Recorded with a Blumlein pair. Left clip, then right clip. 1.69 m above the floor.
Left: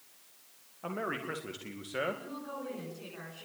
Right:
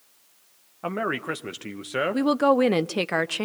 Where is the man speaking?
25° right, 2 m.